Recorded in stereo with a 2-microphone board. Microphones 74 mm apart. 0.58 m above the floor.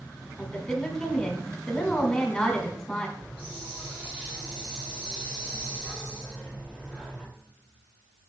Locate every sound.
0.4 s a woman speaking: 5° left (ahead or behind), 2 m
3.2 s a hiss: 15° right (ahead or behind), 3 m